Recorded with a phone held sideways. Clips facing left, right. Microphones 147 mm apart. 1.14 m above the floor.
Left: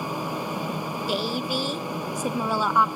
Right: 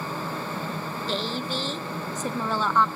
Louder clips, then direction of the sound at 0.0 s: Left 2 dB; 15° left (ahead or behind).